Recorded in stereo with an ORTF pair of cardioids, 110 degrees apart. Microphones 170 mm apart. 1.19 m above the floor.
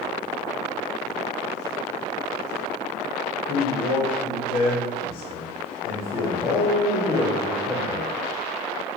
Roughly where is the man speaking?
Ahead left.